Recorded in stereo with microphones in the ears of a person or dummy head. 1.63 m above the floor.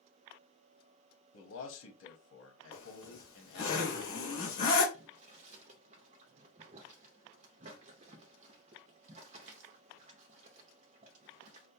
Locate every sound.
1.3 s a man speaking: 80° left, 0.9 m
2.7 s a zipper: 40° left (ahead or behind), 2 m
4.9 s boiling: 45° right (ahead or behind), 0.7 m